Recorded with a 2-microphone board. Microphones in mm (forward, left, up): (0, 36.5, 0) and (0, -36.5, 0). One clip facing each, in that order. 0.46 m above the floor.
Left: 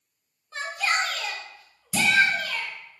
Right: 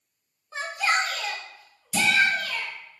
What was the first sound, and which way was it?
A shout, 15° right (ahead or behind).